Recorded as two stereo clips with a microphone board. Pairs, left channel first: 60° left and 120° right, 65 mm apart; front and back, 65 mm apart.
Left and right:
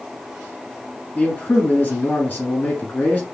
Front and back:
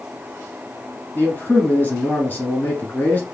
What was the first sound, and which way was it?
A man speaking, 25° left.